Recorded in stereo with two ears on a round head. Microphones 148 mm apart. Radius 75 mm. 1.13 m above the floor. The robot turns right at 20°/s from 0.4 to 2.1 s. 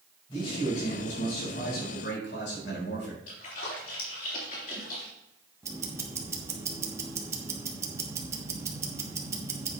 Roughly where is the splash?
Left.